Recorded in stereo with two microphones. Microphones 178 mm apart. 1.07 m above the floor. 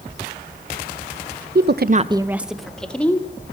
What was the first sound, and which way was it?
A woman speaking, 60° right (ahead or behind).